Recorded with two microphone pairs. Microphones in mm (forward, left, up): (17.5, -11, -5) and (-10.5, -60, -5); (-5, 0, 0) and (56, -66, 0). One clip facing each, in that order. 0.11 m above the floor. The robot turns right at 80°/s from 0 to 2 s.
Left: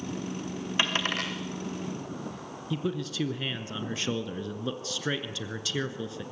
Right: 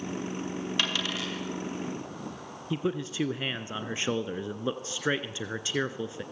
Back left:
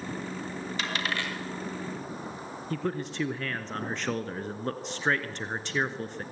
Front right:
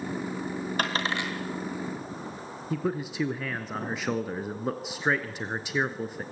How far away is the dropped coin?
About 4.5 m.